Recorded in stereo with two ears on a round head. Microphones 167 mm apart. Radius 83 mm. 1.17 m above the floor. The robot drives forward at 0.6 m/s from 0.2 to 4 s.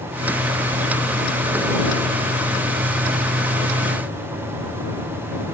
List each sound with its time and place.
Only background noise.